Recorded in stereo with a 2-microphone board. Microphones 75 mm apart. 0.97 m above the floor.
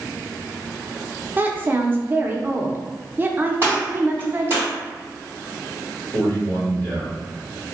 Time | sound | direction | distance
1.4 | a woman speaking | 25° right (ahead or behind) | 0.5 m
3.6 | a gunshot | 35° right (ahead or behind) | 1.8 m
6.1 | a man speaking | 45° right (ahead or behind) | 1.7 m